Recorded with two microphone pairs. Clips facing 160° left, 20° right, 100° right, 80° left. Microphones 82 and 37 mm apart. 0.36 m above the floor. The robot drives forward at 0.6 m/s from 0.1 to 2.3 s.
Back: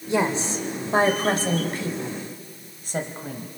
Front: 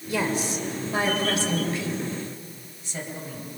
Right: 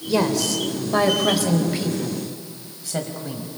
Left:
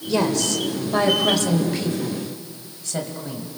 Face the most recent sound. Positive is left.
turn(degrees=180)